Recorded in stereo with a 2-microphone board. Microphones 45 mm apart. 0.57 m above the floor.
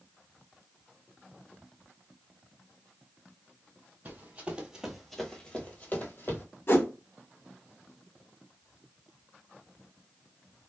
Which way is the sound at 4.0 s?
40° right (ahead or behind).